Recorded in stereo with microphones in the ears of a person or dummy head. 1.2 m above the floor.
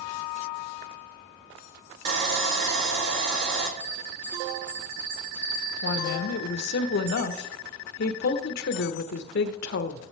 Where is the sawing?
70° right (ahead or behind), 1.4 m.